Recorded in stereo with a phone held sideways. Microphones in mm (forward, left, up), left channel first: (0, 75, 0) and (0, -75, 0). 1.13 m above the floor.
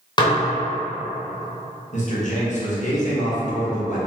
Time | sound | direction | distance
0.2 | dishes clattering | 30° left (ahead or behind) | 0.7 m
1.9 | a man speaking | 55° left (ahead or behind) | 1.2 m